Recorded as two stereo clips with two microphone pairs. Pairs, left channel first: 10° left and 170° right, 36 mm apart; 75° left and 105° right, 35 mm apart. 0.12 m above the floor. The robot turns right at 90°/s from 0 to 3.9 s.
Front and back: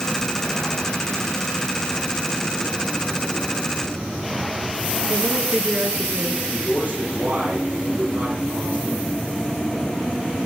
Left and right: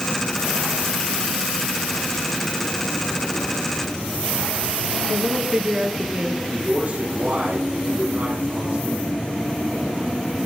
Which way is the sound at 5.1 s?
150° right.